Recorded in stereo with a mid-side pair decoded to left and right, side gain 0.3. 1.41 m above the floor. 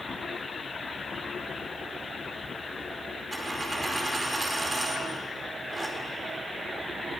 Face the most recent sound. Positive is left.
turn(degrees=-35)